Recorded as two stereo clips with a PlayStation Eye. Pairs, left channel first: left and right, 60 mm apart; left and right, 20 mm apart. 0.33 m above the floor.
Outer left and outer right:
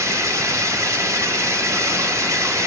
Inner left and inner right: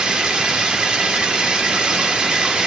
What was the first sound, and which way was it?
Running water, 55° right (ahead or behind).